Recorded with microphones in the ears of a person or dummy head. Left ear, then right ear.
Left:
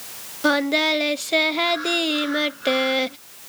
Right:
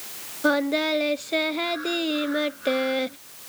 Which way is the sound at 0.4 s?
5° left (ahead or behind).